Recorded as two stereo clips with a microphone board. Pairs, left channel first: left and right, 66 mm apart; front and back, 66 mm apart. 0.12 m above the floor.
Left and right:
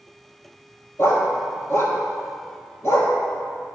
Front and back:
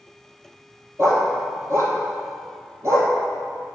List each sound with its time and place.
1.0 s a dog barking: 135° left, 1.3 m